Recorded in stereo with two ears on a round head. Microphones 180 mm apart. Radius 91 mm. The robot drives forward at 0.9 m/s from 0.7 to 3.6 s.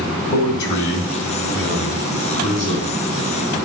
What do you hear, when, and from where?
0.3 s a man speaking: 60° left (ahead or behind), 2.5 m; by 3.1 s 35° left (ahead or behind), 4 m